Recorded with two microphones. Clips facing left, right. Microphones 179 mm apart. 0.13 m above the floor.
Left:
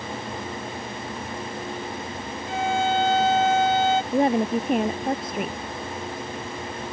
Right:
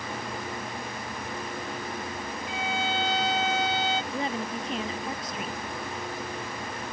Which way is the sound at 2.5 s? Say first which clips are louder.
Left 9 dB; 55° left (ahead or behind).